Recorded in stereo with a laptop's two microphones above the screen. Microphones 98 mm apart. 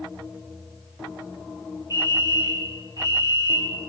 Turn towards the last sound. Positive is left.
turn(degrees=-40)  # may be behind; listen again after turning